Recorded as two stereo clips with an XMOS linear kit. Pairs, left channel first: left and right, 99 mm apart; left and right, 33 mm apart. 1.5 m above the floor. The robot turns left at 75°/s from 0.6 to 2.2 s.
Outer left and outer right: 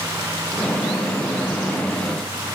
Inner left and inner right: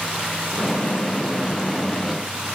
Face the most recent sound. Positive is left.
No sound to turn to.